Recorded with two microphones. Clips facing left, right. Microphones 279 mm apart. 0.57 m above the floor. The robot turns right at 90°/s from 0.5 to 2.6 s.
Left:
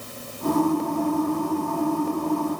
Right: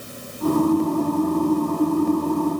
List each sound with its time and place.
Only background noise.